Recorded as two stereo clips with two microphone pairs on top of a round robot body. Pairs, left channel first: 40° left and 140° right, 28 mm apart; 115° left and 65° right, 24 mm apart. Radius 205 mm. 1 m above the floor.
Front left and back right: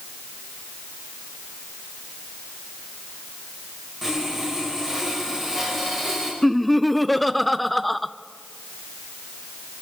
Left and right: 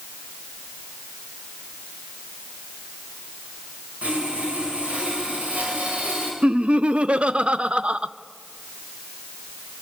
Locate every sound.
4.0 s sawing: 60° right, 5 m
6.4 s laughter: 50° right, 1.0 m